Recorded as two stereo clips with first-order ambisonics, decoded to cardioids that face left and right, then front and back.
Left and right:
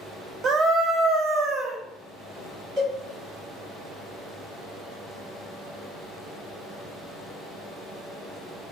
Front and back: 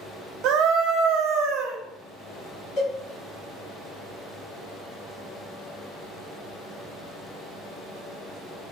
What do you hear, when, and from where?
0.4 s a scream: 150° right, 0.6 m
2.8 s a cowbell: 40° right, 1.8 m